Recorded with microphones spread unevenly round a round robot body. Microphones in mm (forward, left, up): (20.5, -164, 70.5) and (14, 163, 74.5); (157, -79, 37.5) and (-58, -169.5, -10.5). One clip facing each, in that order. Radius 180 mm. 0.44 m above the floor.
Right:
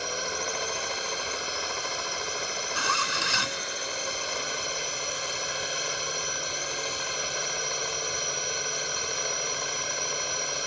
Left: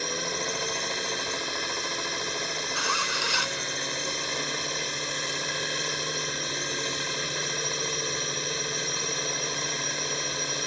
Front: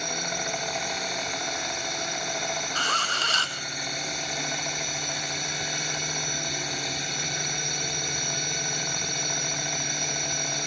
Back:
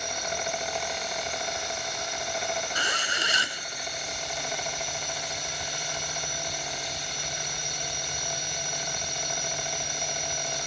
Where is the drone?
25° left.